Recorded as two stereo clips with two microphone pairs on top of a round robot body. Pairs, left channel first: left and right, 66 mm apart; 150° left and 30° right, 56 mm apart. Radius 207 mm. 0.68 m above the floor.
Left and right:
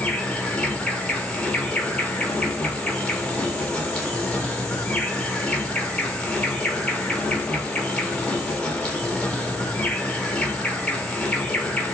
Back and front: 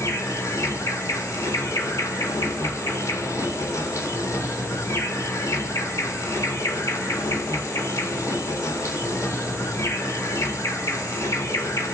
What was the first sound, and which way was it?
An insect, 160° left.